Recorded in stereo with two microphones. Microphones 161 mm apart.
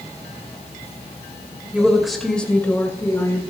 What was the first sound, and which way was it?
A woman speaking, 10° right (ahead or behind).